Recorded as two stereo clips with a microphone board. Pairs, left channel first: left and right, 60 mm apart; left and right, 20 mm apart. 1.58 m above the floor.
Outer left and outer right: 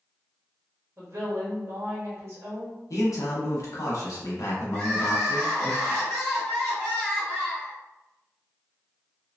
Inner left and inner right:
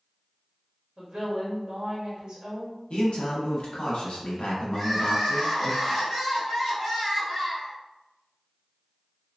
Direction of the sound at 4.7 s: 5° left (ahead or behind).